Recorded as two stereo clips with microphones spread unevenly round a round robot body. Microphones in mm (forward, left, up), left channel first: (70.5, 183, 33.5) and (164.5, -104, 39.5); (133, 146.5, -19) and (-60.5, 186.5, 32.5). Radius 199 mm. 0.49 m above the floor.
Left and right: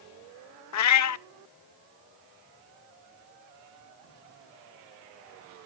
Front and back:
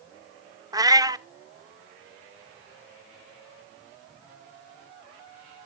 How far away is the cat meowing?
About 0.6 m.